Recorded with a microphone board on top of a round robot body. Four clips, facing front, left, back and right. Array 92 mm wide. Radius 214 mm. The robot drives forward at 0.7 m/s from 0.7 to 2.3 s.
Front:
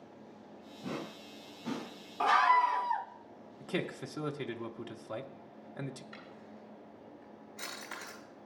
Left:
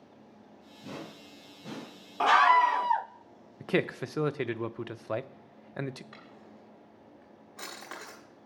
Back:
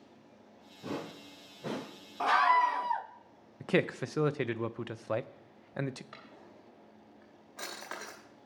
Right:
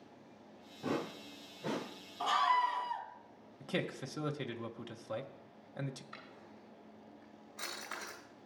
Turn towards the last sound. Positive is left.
turn(degrees=150)